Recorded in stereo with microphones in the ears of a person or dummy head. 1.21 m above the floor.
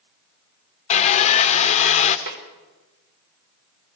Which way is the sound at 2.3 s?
50° right (ahead or behind).